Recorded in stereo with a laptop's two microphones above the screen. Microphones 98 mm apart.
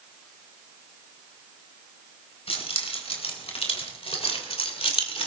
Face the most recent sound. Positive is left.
turn(degrees=80)